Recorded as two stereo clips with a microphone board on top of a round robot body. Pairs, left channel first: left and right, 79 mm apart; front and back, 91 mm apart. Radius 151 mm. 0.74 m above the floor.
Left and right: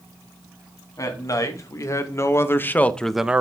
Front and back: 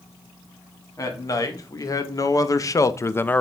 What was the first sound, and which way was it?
A man speaking, 50° left.